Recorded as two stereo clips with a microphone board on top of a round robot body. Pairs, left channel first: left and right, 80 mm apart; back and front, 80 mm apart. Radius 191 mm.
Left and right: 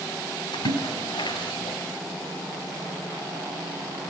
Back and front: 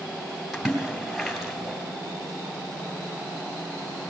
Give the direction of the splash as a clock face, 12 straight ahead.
9 o'clock.